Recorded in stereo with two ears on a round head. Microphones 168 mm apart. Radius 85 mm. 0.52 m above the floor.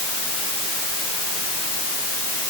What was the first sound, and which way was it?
Only background noise.